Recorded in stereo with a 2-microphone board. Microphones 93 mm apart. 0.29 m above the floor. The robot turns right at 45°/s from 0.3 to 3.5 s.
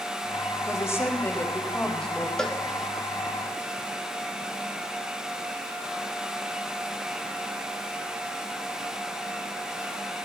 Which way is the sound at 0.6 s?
105° left.